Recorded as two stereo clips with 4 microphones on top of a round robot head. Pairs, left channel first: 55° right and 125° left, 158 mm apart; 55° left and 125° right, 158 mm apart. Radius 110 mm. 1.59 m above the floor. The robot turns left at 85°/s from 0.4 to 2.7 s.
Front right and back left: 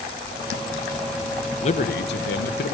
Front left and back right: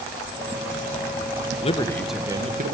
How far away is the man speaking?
About 1.7 m.